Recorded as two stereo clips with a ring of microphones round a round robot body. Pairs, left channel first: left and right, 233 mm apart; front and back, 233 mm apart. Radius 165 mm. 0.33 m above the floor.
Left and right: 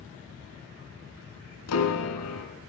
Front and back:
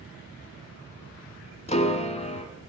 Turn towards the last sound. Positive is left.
turn(degrees=60)